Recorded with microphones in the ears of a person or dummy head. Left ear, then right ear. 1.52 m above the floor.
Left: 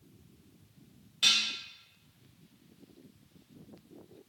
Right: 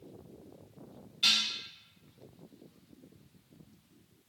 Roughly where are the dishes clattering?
Left.